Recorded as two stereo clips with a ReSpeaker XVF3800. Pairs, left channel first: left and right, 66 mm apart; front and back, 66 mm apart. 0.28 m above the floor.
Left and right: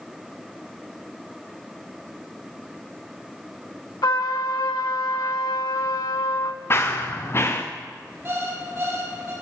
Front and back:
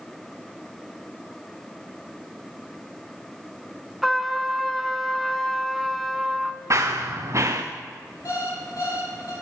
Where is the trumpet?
90° left, 0.6 m.